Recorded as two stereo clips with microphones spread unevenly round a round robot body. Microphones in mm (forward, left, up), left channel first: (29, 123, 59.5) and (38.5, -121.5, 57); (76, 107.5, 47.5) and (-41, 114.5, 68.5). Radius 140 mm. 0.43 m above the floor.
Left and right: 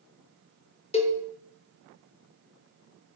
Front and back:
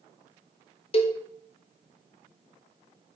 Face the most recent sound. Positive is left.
turn(degrees=25)